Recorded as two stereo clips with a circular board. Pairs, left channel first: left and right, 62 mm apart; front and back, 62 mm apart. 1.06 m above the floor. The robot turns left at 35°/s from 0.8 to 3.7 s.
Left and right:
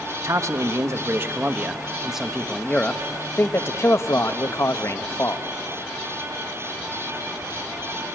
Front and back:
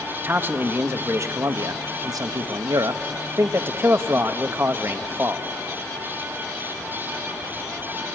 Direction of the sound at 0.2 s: 125° right.